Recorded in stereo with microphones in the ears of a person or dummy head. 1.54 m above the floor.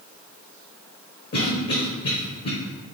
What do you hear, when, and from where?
1.3 s a cough: 45° left (ahead or behind), 0.8 m